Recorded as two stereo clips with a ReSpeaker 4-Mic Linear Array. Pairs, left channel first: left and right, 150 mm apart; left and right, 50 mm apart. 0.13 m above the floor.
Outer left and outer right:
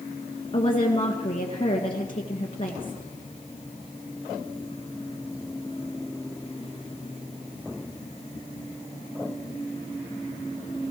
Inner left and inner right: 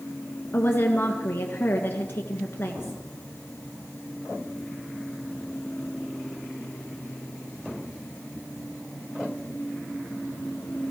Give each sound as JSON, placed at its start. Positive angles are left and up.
{"t": 0.5, "sound": "a woman speaking", "side_deg": 35, "distance_m": 1.7}